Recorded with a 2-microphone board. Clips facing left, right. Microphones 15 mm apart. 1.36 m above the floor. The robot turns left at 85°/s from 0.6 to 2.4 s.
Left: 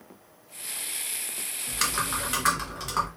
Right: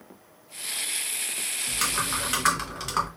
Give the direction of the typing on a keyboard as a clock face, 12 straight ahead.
11 o'clock.